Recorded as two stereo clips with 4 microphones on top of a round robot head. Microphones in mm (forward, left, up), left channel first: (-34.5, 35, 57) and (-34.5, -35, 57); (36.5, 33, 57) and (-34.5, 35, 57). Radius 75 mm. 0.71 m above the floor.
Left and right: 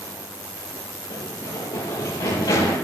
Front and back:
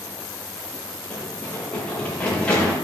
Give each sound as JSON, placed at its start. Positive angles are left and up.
{"t": 1.1, "sound": "running footsteps", "azimuth_deg": 70, "distance_m": 7.0}